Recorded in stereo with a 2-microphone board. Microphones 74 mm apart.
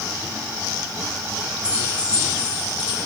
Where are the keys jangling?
15° left (ahead or behind), 7.5 m; by 3.0 s 10° left (ahead or behind), 7.5 m.